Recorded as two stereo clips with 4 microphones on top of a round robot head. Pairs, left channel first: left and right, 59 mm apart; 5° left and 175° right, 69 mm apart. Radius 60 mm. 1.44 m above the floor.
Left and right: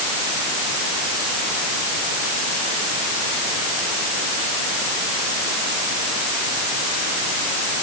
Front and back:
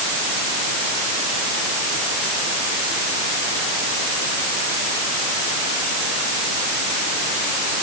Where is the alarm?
I don't hear an alarm.